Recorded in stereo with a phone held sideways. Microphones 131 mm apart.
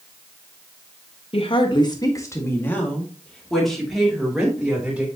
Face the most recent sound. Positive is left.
turn(degrees=-10)  # may be behind; listen again after turning